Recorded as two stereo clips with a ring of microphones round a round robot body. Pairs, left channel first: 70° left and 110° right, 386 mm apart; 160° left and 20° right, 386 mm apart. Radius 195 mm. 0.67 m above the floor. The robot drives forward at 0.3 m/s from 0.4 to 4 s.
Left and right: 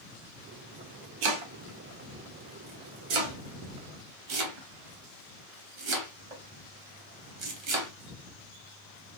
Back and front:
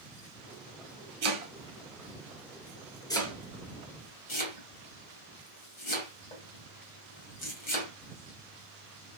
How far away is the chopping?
About 0.9 m.